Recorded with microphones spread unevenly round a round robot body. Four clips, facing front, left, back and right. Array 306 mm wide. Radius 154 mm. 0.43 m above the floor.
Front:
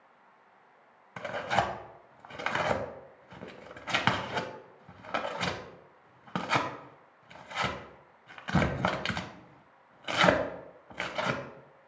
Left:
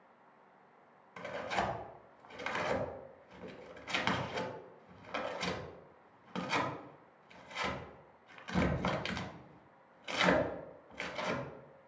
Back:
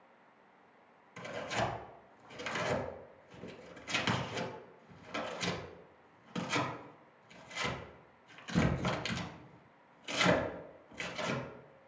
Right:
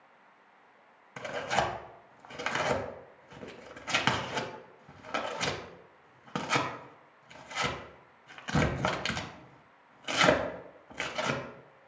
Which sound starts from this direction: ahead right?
Tearing paper, at 1.2 s.